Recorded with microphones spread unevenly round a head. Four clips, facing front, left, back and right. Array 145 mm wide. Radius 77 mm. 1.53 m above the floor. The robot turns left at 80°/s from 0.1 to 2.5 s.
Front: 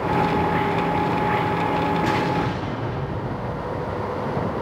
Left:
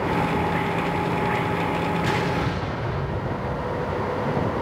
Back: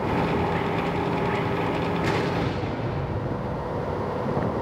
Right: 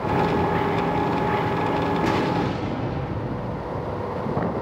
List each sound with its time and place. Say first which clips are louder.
2.0 s an explosion: right 2 dB, front 3 dB; 65° right, 2.0 m; by 3.8 s 100° right, 2.0 m